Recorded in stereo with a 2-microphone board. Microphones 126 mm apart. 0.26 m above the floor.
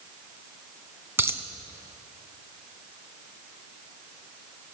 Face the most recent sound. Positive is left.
turn(degrees=-20)  # may be behind; listen again after turning